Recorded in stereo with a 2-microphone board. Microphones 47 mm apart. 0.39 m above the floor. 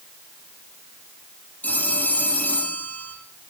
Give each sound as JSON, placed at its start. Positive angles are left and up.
{"t": 1.6, "sound": "a phone ringing", "side_deg": 30, "distance_m": 7.5}